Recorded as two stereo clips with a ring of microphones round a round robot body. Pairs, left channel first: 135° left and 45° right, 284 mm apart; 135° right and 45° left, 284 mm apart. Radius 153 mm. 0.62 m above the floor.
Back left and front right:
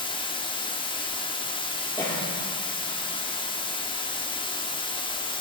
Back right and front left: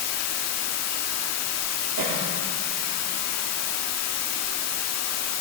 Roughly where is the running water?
Behind right.